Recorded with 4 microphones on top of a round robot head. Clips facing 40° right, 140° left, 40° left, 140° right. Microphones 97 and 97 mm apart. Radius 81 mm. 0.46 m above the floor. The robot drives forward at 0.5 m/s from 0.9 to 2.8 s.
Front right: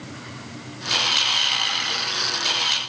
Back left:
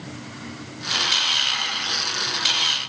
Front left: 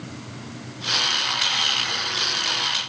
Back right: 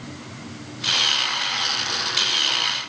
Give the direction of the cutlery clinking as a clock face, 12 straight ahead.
I don't hear cutlery clinking.